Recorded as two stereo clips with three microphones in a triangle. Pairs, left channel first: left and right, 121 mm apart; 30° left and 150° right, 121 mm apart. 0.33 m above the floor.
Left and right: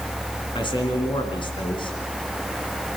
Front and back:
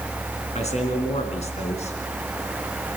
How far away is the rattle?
I don't hear a rattle.